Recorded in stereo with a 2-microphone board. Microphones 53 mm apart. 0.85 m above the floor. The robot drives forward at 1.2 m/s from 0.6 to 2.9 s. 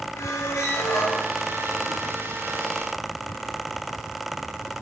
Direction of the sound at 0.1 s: 75° left (ahead or behind).